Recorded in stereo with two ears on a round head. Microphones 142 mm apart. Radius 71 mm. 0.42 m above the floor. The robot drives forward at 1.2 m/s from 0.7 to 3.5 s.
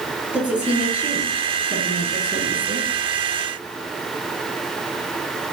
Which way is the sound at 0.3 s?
10° right (ahead or behind).